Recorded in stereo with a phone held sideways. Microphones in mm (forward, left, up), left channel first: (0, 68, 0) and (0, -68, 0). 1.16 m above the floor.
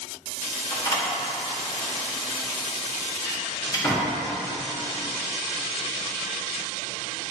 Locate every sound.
0.7 s a door slam: 25° left (ahead or behind), 1.7 m